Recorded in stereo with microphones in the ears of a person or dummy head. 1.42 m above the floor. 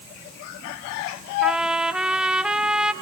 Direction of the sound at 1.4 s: 5° right (ahead or behind).